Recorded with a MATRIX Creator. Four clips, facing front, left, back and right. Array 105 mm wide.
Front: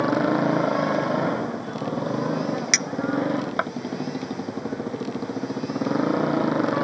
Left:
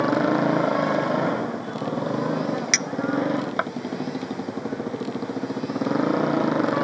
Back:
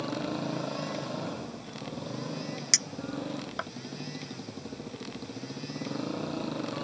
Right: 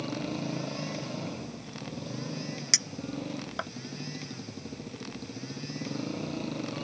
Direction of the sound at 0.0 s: 50° left.